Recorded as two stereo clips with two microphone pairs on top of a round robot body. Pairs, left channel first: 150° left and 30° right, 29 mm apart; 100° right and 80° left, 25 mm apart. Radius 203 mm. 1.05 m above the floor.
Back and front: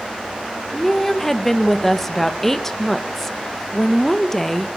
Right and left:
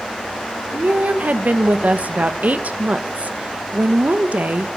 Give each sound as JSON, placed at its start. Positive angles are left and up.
{"t": 0.7, "sound": "a woman speaking", "azimuth_deg": 70, "distance_m": 1.9}